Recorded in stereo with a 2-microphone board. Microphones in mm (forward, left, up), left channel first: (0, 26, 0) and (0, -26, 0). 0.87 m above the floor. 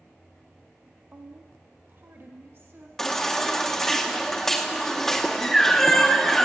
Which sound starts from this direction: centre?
A baby crying, at 3.0 s.